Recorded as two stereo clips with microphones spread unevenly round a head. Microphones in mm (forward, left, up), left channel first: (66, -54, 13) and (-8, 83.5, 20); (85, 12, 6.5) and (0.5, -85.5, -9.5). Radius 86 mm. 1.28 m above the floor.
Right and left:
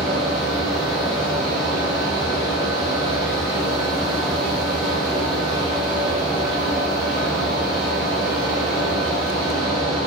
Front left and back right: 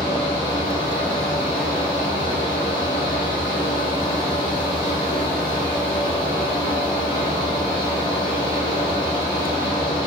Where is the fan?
20° left, 1.0 m.